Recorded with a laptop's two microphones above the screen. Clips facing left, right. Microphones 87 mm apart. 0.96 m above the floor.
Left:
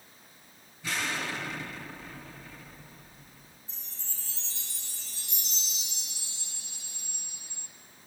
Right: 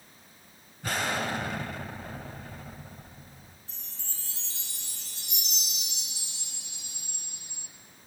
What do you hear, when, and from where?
0.8 s an explosion: 55° right (ahead or behind), 3 m
3.7 s a chime: 75° right (ahead or behind), 3.5 m